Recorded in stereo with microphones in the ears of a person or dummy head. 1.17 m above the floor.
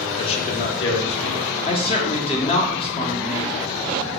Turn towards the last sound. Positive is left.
turn(degrees=30)  # may be behind; listen again after turning